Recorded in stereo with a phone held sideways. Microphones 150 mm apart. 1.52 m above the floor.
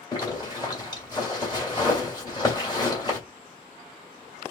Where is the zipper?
30° left (ahead or behind), 1.9 m.